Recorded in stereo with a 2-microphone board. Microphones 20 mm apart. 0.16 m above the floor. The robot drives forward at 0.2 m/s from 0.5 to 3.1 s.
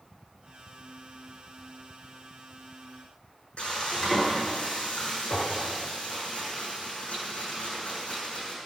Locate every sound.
3.6 s frying: 70° left (ahead or behind), 7 m